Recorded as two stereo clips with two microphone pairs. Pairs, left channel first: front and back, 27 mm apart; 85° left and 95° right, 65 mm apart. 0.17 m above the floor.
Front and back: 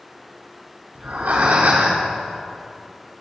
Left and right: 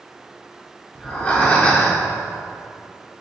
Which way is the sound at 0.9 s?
160° left.